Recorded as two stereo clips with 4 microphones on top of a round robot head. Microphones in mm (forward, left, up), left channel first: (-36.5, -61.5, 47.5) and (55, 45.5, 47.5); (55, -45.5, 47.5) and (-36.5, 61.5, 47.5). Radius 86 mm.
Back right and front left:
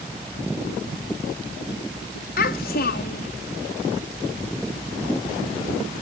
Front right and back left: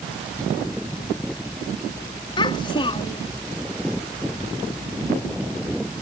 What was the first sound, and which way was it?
A child speaking, 110° right.